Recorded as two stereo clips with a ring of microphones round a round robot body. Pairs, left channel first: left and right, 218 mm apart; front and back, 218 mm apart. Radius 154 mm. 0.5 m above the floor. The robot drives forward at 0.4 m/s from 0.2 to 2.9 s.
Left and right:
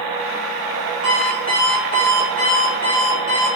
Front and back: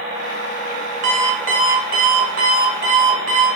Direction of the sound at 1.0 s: 140° left.